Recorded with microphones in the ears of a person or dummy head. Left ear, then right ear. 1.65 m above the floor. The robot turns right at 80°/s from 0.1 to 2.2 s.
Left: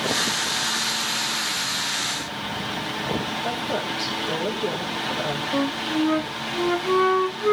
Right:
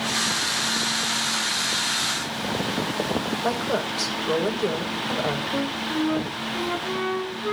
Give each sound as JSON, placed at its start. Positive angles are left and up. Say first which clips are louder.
{"t": 3.4, "sound": "a woman speaking", "louder": "right 1 dB", "side_deg": -60, "distance_m": 6.5}
{"t": 5.5, "sound": "a flute", "louder": "left 2 dB", "side_deg": 25, "distance_m": 0.8}